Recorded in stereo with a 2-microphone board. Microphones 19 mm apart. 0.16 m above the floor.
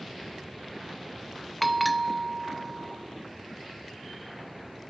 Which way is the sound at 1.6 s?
5° left (ahead or behind).